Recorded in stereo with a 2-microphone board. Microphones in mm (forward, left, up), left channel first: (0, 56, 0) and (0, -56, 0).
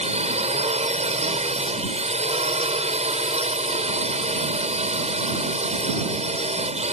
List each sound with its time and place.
0.0 s a drone: 70° right (ahead or behind)